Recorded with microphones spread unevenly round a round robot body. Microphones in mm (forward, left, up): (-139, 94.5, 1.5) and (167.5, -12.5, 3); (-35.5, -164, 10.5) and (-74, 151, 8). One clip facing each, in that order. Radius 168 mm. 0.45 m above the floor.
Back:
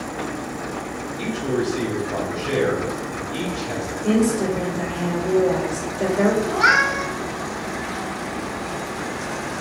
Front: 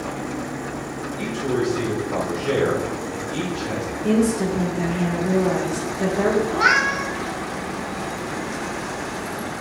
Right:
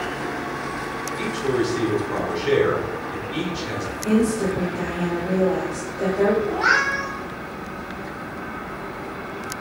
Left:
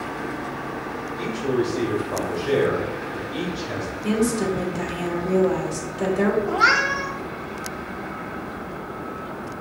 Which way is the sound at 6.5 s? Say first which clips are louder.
Even, even; 60° left.